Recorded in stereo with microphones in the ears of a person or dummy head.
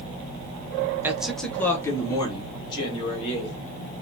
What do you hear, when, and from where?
1.0 s a man speaking: 10° right (ahead or behind), 0.7 m; by 3.5 s 35° left (ahead or behind), 1.9 m